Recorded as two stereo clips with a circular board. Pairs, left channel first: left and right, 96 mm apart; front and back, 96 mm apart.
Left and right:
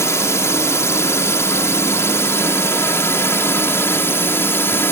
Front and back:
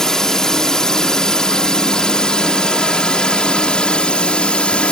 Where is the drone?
80° left; by 4.9 s 65° left.